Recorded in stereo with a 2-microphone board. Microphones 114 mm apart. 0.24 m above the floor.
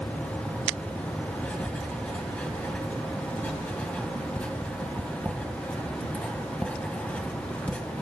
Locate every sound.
1.4 s writing: 10° left (ahead or behind), 1.2 m